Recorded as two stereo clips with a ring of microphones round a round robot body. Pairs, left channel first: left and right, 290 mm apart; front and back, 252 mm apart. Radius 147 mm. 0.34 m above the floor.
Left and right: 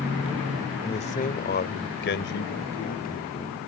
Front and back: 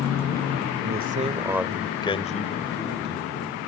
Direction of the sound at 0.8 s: 155° left.